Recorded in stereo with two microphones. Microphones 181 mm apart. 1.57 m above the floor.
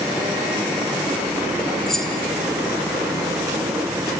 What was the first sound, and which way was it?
Keys jangling, centre (ahead or behind).